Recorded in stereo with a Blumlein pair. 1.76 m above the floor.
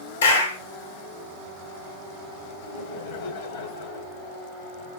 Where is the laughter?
60° left, 1.4 m.